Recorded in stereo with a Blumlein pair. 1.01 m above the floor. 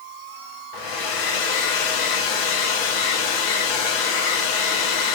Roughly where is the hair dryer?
Ahead left.